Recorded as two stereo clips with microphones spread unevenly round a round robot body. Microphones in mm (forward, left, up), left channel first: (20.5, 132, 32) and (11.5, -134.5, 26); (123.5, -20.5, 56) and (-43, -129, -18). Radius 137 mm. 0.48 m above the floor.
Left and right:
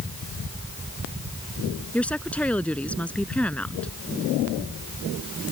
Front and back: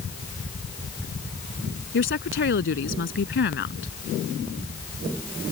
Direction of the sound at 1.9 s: Straight ahead.